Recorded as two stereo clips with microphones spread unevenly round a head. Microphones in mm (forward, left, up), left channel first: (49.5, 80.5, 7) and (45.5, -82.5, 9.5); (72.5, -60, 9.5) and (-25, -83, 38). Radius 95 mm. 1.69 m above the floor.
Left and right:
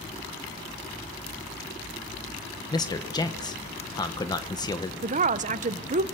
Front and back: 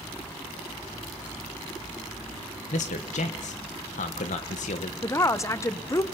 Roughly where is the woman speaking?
Ahead right.